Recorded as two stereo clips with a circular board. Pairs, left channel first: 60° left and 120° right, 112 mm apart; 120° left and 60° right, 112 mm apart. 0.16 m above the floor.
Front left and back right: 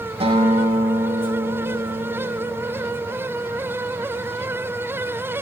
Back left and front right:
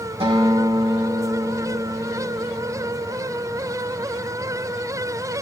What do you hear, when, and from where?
0.2 s a guitar: 90° right, 7.5 m